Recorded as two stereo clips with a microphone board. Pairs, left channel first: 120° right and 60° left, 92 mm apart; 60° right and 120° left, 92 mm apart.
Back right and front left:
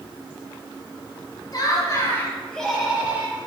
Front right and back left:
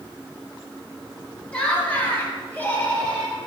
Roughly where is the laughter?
Behind right.